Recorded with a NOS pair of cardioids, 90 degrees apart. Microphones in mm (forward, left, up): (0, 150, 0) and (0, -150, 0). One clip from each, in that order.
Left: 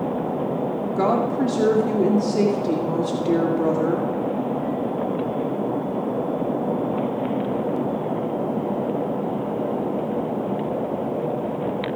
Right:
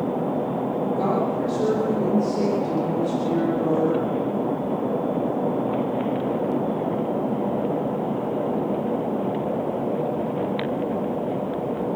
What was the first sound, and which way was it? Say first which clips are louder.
A woman speaking: left 5 dB; 65° left.